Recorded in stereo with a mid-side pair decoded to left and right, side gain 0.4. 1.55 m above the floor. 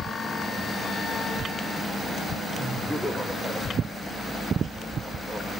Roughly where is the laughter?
Ahead.